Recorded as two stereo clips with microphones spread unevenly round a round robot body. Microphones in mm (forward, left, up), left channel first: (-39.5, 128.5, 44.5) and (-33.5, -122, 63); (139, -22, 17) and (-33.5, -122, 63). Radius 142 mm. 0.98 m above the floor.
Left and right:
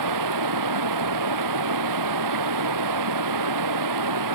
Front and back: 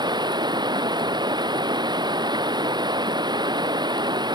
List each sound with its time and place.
0.0 s running water: 80° right